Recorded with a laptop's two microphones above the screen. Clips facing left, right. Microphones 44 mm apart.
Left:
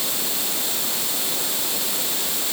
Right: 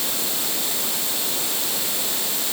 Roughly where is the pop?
No pop in this recording.